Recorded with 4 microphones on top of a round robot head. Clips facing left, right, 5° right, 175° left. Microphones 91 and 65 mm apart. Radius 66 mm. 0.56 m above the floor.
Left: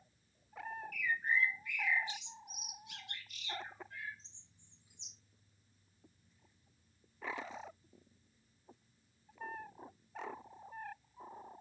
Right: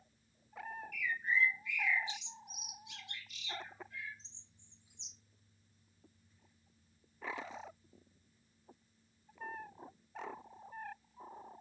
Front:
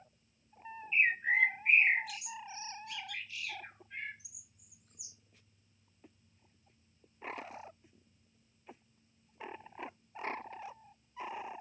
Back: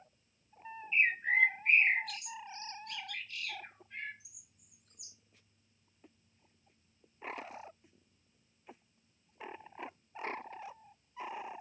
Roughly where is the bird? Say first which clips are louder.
Even, even; left.